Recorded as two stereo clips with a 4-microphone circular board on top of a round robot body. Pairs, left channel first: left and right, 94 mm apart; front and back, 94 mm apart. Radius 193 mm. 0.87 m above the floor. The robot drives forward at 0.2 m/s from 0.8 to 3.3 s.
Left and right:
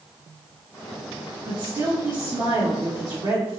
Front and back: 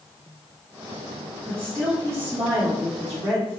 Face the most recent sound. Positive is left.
turn(degrees=-135)